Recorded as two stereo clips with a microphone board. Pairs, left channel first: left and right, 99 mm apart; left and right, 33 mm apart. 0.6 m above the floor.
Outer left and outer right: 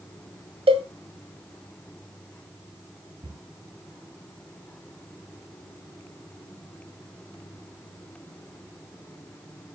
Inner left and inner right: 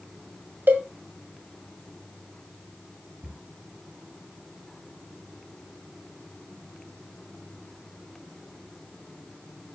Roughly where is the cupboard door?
Right.